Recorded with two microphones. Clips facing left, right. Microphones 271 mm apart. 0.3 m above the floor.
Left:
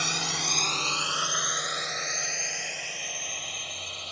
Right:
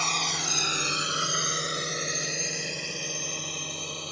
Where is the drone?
15° left (ahead or behind); by 4.1 s 55° right (ahead or behind).